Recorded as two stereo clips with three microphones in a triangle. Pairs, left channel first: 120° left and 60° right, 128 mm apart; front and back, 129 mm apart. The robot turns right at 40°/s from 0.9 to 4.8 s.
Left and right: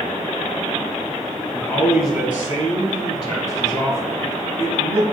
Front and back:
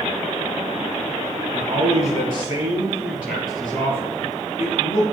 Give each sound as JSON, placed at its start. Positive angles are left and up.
{"t": 1.5, "sound": "a man speaking", "azimuth_deg": -165, "distance_m": 4.0}